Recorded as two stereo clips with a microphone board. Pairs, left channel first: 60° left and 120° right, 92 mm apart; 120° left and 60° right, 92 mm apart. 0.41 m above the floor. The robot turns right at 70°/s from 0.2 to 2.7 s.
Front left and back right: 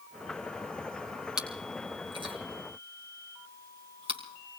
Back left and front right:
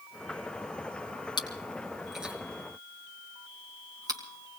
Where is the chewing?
160° left, 2.5 m; by 4.6 s 110° right, 2.5 m.